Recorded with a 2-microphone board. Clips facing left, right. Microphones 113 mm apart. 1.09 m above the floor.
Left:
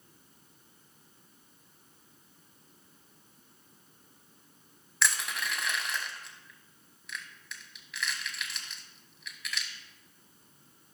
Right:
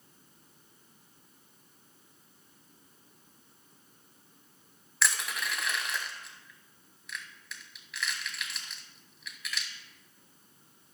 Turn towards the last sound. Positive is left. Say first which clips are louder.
# even
turn(degrees=0)  # may be behind; listen again after turning